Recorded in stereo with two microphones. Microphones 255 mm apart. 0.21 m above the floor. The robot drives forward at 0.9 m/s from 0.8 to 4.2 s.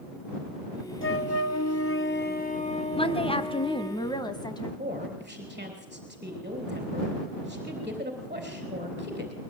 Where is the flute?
50° left (ahead or behind), 0.7 m; by 4.0 s 15° left (ahead or behind), 2.5 m.